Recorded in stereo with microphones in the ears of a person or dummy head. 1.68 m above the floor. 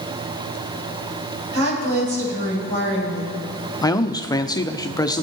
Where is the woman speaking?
85° right, 7.5 m.